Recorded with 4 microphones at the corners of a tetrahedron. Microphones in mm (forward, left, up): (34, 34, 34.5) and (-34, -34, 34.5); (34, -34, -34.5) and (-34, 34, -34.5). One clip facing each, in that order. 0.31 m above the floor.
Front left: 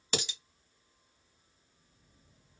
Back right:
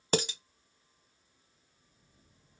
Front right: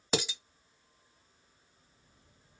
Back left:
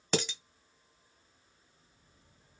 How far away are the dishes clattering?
About 0.7 m.